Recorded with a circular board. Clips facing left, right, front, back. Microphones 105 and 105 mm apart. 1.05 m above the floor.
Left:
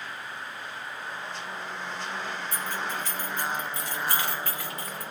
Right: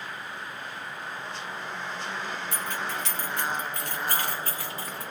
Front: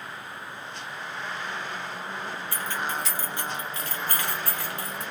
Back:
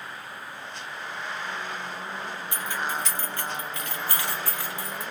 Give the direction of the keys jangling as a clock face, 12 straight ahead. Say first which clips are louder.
Even, back 1 dB; 4 o'clock.